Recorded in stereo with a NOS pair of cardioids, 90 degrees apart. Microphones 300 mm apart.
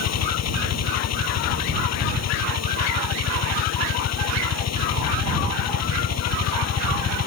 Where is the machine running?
60° left.